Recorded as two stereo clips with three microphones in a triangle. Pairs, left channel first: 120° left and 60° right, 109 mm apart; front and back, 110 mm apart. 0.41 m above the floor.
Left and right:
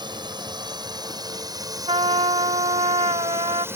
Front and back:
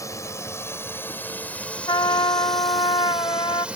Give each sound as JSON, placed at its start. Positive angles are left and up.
{"t": 0.0, "sound": "a drone", "azimuth_deg": -50}
{"t": 1.9, "sound": "a trumpet", "azimuth_deg": -40}